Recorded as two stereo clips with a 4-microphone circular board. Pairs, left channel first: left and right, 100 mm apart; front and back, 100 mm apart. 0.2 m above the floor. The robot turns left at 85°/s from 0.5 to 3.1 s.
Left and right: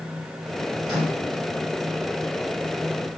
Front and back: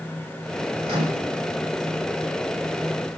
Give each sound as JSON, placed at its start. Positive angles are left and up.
{"t": 0.8, "sound": "a microwave", "azimuth_deg": -170, "distance_m": 2.5}